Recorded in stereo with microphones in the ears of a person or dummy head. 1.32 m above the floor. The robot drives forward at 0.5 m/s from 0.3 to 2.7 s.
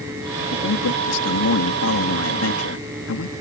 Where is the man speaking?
75° left (ahead or behind); by 3.3 s 80° left.